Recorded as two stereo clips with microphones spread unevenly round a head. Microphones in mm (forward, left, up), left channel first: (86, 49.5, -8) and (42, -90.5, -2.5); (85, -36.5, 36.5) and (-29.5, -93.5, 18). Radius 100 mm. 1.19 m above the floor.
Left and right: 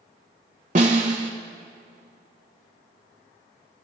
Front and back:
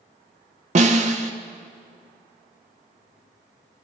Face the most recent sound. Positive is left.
turn(degrees=-155)